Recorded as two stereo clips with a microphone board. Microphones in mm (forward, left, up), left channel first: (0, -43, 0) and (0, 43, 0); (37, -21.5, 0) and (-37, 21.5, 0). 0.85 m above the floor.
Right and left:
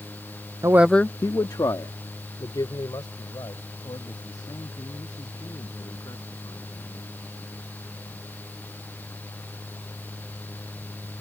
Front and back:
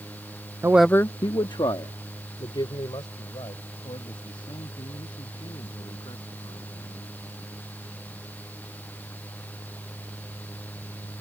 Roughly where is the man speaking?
Behind left.